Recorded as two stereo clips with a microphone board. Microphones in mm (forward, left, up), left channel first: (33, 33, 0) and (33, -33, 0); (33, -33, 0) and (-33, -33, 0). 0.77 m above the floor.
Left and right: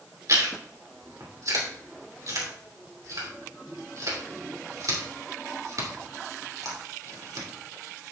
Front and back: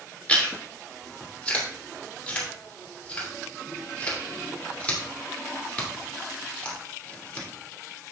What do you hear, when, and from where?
0.3 s chewing: 70° right, 2.5 m